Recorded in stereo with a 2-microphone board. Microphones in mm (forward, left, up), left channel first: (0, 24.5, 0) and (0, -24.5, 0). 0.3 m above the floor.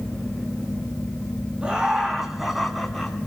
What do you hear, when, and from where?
1.6 s laughter: 20° right (ahead or behind), 3 m; by 3.2 s 5° left (ahead or behind), 3 m